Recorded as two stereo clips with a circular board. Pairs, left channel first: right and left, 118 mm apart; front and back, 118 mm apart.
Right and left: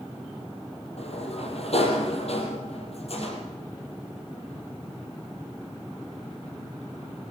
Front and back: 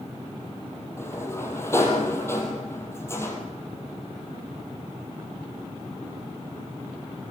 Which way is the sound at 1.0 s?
70° right.